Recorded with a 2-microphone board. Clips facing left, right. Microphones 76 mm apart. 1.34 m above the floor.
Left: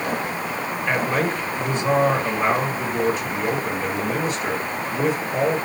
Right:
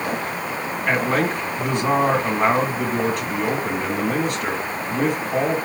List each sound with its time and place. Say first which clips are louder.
0.8 s a man speaking: right 2 dB; 60° right (ahead or behind), 2.5 m